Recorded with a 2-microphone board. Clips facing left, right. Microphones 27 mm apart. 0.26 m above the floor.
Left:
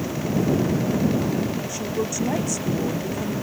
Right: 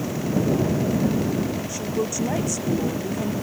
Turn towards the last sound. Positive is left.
turn(degrees=-5)  # may be behind; listen again after turning